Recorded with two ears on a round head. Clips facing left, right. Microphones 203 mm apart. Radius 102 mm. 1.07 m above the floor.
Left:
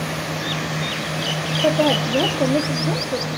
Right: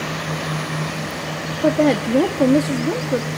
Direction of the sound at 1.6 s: 30° right (ahead or behind).